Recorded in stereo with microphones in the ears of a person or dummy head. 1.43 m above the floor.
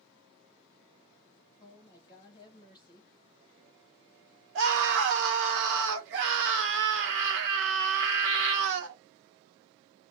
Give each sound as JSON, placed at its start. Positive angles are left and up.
{"t": 1.6, "sound": "a woman speaking", "side_deg": 20, "distance_m": 0.7}
{"t": 4.5, "sound": "a scream", "side_deg": -65, "distance_m": 1.1}